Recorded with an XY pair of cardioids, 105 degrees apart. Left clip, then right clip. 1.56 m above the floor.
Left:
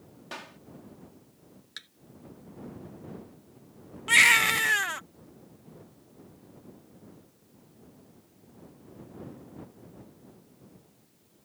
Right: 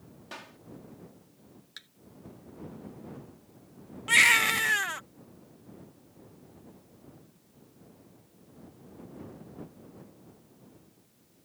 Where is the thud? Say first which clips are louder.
Left 4 dB; 25° left.